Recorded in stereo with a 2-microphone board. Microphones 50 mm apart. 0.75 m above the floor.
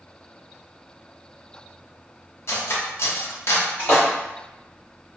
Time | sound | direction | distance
2.5 | cutlery clinking | 60° left (ahead or behind) | 0.6 m
3.8 | a splash | 50° left (ahead or behind) | 1.3 m